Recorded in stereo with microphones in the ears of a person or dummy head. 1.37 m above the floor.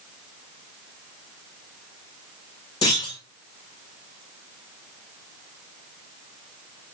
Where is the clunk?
30° left (ahead or behind), 1.8 m.